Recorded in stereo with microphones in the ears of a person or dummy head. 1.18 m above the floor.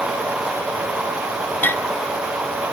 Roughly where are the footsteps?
I don't hear footsteps.